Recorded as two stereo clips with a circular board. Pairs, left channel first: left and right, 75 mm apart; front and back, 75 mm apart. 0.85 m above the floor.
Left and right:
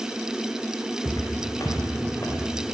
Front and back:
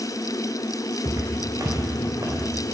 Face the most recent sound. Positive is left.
turn(degrees=140)